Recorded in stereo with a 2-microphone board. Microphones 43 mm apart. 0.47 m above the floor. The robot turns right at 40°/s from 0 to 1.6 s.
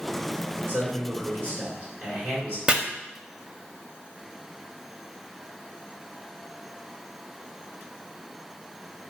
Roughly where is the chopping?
Right.